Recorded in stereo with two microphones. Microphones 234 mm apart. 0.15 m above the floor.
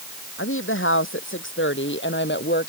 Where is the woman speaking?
60° left (ahead or behind); by 2.7 s 45° left (ahead or behind).